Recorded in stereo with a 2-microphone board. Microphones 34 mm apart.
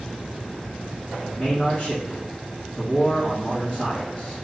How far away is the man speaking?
About 2.0 m.